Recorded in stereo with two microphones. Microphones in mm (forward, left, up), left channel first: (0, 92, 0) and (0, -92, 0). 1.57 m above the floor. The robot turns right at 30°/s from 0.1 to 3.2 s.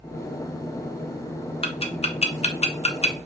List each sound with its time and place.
1.6 s ticking: 30° left (ahead or behind), 0.7 m